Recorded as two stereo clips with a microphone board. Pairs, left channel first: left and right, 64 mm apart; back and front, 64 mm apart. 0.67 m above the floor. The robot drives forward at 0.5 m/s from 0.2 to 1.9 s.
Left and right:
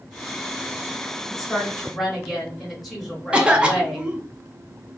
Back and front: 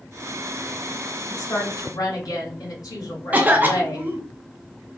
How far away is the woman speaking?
About 1.2 m.